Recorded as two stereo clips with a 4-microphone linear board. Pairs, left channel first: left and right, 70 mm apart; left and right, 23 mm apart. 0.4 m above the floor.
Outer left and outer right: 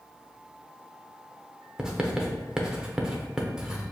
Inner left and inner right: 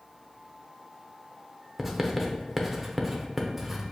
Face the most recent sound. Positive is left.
turn(degrees=-10)  # may be behind; listen again after turning